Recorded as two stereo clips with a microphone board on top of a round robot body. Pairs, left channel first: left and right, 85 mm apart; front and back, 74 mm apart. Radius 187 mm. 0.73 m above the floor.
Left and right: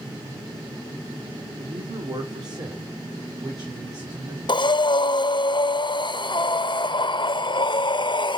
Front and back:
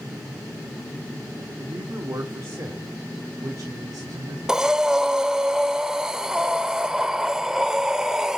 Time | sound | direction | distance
1.6 | a man speaking | 120° right | 1.9 m
4.5 | breathing | 100° left | 1.0 m